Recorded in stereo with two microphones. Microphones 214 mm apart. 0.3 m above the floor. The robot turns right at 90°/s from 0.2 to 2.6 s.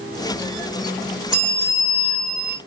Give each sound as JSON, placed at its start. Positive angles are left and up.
{"t": 1.3, "sound": "a bell", "azimuth_deg": 40, "distance_m": 2.0}